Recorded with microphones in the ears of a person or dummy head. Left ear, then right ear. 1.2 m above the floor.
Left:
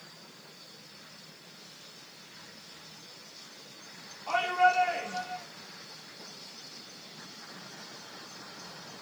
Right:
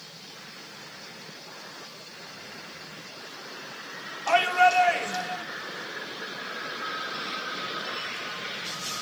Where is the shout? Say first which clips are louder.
Right 5 dB; 50° right (ahead or behind), 4 m.